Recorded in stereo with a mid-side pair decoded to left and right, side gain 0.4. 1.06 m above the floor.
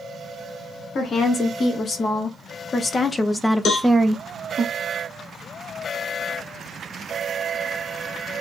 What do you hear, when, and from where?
0.9 s a woman speaking: 65° left, 1.8 m; by 4.7 s 50° right, 0.8 m
3.6 s a cowbell: 65° left, 0.8 m